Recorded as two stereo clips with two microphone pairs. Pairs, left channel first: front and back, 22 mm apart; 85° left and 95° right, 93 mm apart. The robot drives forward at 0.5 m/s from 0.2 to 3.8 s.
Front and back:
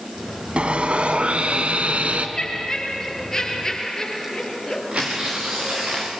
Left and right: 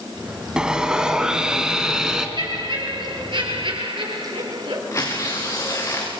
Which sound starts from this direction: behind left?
Tearing paper, at 4.9 s.